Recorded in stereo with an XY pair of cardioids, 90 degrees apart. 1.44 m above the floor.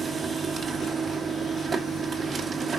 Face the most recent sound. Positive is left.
turn(degrees=-45)